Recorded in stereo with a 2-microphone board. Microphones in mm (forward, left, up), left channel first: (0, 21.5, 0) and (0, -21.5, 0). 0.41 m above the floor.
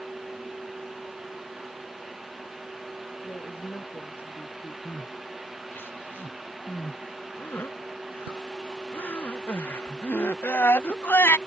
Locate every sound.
3.2 s a woman speaking: 70° left (ahead or behind)
4.8 s crying: 65° left (ahead or behind)